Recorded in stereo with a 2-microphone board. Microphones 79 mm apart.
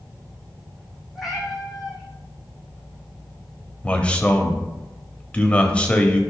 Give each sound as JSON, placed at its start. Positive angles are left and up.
{"t": 1.1, "sound": "a cat meowing", "side_deg": -5, "distance_m": 3.0}
{"t": 3.8, "sound": "a man speaking", "side_deg": 15, "distance_m": 1.0}